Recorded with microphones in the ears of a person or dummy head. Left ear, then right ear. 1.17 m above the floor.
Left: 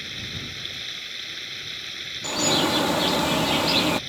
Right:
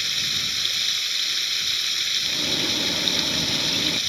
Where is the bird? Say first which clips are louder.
Left 1 dB; 35° left (ahead or behind).